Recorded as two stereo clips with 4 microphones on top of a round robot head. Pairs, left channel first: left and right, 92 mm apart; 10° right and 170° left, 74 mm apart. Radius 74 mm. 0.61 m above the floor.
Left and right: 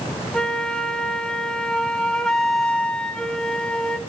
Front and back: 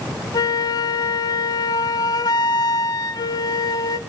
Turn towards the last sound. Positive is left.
turn(degrees=5)